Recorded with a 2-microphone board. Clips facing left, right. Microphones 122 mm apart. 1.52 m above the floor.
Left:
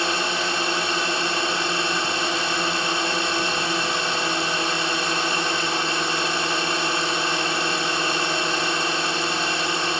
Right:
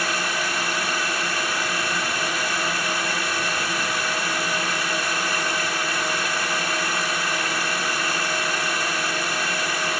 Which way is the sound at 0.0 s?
25° left (ahead or behind).